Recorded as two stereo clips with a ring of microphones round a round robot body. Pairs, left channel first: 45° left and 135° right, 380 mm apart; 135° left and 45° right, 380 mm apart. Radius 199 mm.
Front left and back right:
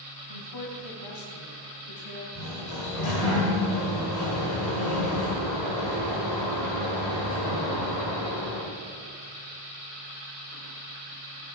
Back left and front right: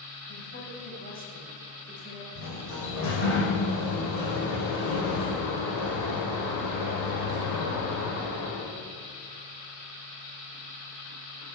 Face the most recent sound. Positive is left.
turn(degrees=90)